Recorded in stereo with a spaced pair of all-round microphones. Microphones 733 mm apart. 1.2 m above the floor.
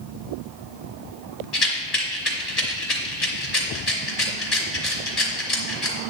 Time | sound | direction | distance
1.5 | a rattle | 60° left (ahead or behind) | 2.5 m